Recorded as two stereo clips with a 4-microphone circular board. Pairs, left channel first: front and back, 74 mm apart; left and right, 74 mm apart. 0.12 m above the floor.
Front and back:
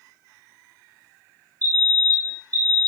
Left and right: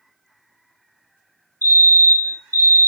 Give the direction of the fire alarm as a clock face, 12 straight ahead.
7 o'clock.